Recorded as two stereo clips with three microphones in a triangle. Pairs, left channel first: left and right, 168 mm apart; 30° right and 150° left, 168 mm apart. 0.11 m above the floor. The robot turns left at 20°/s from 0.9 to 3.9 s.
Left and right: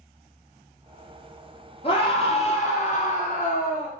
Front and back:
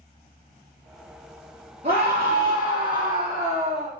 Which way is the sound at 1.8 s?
120° left.